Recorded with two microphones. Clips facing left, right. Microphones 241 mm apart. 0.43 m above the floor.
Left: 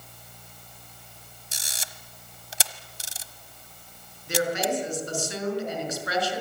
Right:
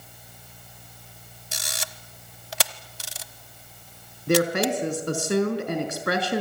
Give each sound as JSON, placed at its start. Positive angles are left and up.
{"t": 1.5, "sound": "a camera shutter", "side_deg": -75, "distance_m": 1.0}
{"t": 4.3, "sound": "a woman speaking", "side_deg": -70, "distance_m": 5.5}